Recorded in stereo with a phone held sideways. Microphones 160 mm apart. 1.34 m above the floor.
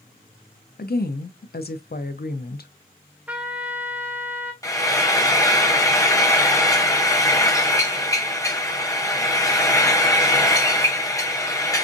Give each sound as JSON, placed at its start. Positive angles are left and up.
{"t": 0.8, "sound": "a woman speaking", "side_deg": 80, "distance_m": 0.6}
{"t": 3.3, "sound": "a trumpet", "side_deg": -10, "distance_m": 0.7}
{"t": 4.6, "sound": "frying", "side_deg": 20, "distance_m": 0.7}